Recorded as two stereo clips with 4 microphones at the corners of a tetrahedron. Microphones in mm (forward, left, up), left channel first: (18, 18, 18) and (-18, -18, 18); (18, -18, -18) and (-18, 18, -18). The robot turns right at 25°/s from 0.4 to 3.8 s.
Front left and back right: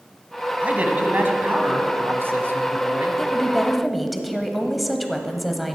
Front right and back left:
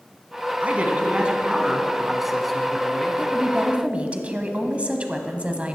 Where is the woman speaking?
120° left, 1.1 m; by 5.8 s 135° left, 1.1 m.